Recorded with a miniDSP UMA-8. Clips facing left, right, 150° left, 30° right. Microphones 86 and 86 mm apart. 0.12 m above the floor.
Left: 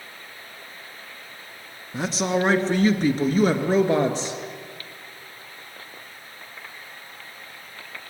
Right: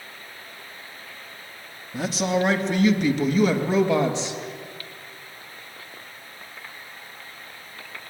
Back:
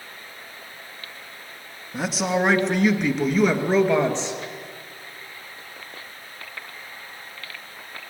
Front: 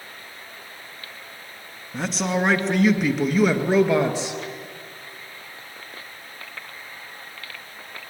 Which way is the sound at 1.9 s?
70° left.